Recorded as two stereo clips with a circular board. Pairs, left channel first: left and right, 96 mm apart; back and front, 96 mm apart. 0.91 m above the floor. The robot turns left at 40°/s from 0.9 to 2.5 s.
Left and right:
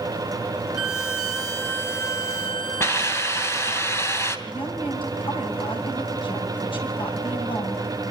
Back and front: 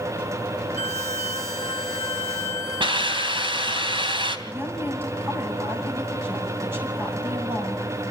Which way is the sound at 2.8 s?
30° left.